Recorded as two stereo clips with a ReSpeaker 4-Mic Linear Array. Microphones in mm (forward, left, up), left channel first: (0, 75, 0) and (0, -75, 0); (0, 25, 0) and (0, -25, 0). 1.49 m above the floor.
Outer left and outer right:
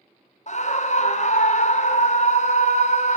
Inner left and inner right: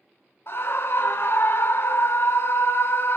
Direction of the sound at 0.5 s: 50° left (ahead or behind).